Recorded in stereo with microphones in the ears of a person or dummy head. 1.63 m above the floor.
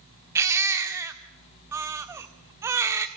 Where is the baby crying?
15° right (ahead or behind), 1.5 m.